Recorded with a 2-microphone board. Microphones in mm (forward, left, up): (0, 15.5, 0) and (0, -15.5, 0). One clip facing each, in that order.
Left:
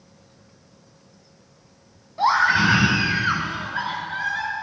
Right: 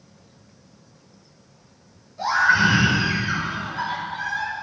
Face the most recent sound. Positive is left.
turn(degrees=60)  # may be behind; listen again after turning